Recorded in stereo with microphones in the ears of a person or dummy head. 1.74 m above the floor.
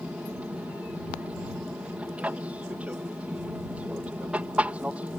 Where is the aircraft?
15° right (ahead or behind).